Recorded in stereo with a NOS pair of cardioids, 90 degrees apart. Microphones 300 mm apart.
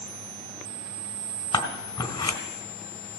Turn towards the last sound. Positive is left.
turn(degrees=15)